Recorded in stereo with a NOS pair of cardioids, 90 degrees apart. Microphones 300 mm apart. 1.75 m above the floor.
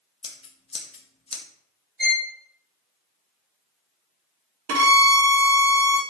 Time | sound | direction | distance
0.2 | scissors | 20° left | 0.5 m
2.0 | a violin | 30° right | 1.8 m
4.7 | a violin | 55° right | 0.9 m